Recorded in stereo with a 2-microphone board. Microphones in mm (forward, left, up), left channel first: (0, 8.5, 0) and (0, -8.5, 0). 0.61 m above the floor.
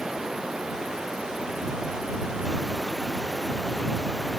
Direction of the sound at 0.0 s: 45° right (ahead or behind).